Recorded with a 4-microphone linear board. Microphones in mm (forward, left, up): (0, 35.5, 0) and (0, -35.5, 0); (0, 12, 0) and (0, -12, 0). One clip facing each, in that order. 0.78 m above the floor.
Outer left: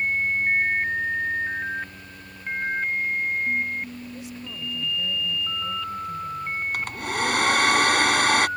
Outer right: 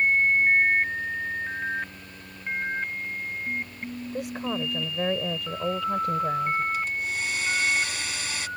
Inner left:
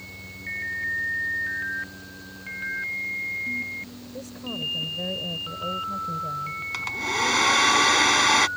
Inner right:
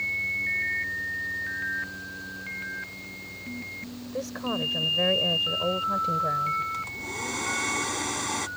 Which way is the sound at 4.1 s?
60° right (ahead or behind).